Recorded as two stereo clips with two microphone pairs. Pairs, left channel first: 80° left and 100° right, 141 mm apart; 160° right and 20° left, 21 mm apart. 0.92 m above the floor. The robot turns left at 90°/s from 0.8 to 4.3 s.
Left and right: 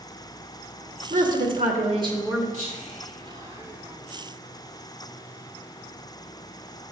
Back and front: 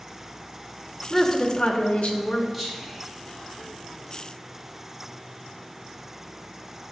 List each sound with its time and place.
1.1 s a woman speaking: 70° right, 1.4 m; by 2.4 s 170° left, 1.4 m
2.5 s whispering: 75° right, 4 m; by 4.3 s 130° left, 4 m